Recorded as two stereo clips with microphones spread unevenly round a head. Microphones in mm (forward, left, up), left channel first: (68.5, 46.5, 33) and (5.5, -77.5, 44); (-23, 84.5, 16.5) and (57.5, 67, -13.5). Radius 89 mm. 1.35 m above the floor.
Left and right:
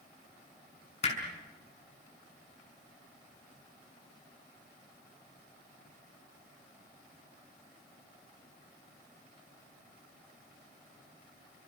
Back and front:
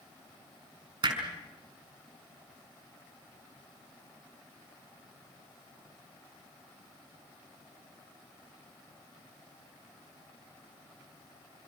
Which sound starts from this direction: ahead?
Hammering, at 1.0 s.